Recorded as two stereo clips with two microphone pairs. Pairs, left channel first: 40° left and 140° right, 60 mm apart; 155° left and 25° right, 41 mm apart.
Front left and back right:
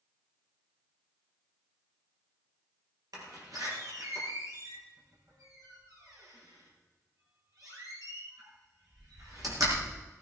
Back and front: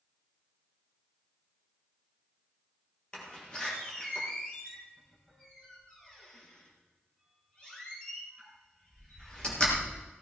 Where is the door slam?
135° right, 4.5 m.